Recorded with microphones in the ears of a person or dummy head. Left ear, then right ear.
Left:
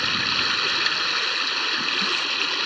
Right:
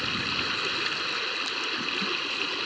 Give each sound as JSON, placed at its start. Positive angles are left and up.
{"t": 0.0, "sound": "running water", "side_deg": 25}